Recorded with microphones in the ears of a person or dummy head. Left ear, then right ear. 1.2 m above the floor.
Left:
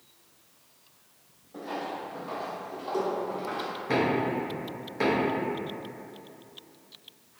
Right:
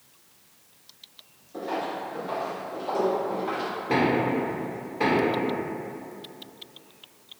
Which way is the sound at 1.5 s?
25° left (ahead or behind).